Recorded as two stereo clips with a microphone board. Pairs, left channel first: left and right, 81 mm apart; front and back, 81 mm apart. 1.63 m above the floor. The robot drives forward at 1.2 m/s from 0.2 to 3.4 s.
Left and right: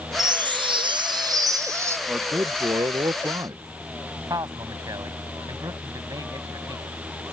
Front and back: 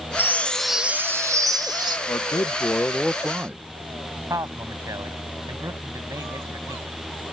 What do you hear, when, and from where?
0.2 s a chime: 60° right; by 2.0 s 145° right
2.1 s a man speaking: 30° right; by 3.6 s 115° right
4.3 s a man speaking: 130° right